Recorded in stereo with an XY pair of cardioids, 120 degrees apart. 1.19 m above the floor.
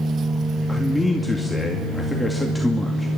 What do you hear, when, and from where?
0.7 s a man speaking: 5° left, 2.5 m